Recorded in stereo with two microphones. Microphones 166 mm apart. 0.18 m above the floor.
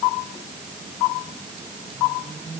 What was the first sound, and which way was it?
Only background noise.